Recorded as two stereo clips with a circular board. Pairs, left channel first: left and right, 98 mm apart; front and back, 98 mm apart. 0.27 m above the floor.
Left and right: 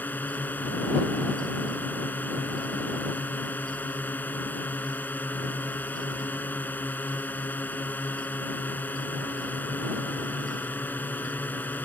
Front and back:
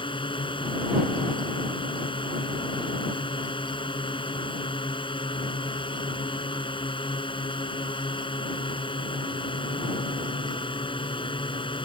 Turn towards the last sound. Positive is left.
turn(degrees=20)